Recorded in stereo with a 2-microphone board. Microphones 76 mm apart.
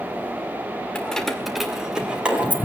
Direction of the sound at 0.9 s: 10° left (ahead or behind).